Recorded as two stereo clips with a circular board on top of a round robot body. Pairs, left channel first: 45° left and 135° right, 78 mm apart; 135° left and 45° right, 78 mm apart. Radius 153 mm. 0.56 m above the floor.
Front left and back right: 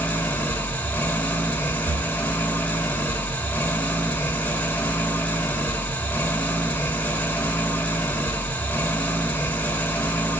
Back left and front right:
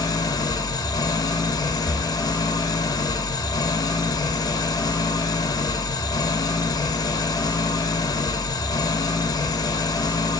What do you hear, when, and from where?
0.0 s an engine running: 115° left, 1.6 m
1.9 s breathing: 145° right, 1.4 m